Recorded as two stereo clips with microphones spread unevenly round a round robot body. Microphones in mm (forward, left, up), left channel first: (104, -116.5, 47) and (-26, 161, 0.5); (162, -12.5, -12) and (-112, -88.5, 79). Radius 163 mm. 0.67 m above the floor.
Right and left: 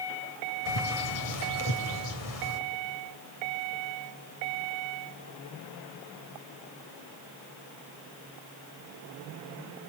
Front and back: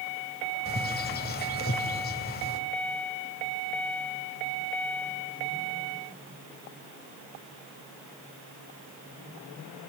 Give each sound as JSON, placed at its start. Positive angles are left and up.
{"t": 0.7, "sound": "a bird", "azimuth_deg": -40, "distance_m": 2.5}